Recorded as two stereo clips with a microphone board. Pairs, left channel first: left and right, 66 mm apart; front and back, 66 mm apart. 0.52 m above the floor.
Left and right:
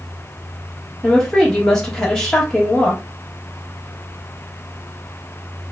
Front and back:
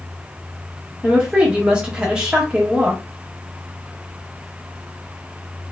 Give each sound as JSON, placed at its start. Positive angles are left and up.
{"t": 1.0, "sound": "a woman speaking", "azimuth_deg": 150, "distance_m": 1.1}